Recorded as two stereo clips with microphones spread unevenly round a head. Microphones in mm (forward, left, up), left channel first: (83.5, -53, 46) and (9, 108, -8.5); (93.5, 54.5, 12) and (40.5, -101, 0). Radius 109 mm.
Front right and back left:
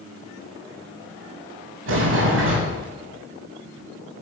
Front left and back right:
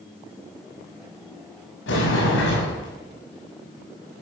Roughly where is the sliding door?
Left.